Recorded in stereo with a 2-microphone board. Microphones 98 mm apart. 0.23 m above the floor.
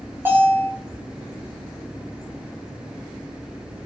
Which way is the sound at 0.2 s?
25° right (ahead or behind).